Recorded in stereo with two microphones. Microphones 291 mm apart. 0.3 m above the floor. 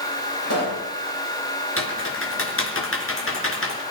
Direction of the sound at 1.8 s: 45° left (ahead or behind).